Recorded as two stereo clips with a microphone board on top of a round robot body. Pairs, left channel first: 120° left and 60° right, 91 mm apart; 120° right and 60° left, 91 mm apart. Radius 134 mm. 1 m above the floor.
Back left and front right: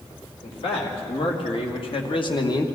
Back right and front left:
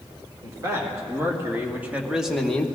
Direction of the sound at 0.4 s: 120° left.